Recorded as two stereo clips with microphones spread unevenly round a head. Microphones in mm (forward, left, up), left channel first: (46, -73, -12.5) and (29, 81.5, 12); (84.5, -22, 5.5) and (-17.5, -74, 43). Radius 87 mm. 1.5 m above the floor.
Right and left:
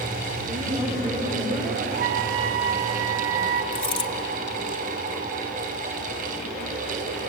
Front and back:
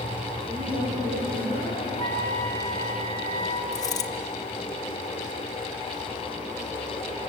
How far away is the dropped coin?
About 1.5 m.